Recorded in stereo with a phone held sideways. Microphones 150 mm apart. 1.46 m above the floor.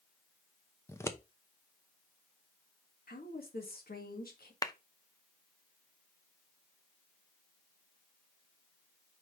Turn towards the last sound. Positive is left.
turn(degrees=25)  # may be behind; listen again after turning